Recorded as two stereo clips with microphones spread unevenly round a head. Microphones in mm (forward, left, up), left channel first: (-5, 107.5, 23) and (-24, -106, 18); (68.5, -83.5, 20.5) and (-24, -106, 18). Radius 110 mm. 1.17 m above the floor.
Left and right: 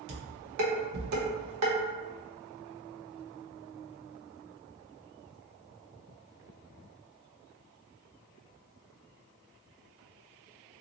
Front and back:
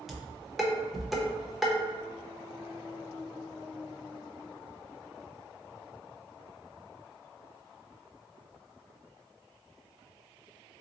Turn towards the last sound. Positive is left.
turn(degrees=-80)